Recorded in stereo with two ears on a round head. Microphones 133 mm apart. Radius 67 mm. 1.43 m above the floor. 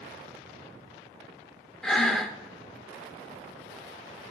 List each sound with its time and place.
1.8 s breathing: 5° left (ahead or behind), 0.7 m